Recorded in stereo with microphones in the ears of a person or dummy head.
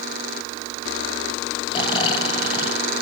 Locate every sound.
1.7 s snoring: 30° left (ahead or behind), 1.6 m